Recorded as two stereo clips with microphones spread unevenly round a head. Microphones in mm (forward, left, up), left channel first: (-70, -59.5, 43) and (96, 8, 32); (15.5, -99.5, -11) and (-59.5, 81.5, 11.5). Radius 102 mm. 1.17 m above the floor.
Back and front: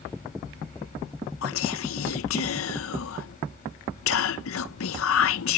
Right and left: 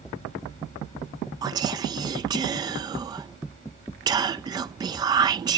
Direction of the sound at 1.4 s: 175° right.